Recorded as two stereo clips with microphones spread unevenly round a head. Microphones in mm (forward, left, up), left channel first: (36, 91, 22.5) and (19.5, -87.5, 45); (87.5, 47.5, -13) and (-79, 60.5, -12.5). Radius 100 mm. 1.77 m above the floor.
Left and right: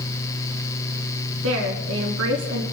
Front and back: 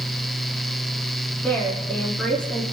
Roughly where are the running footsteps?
No running footsteps in this recording.